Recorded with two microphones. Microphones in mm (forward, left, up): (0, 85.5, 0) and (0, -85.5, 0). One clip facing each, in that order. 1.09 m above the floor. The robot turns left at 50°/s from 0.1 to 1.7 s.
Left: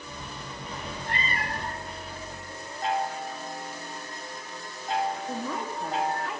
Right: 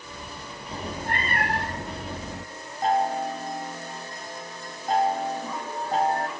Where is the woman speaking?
65° left (ahead or behind), 2.5 m.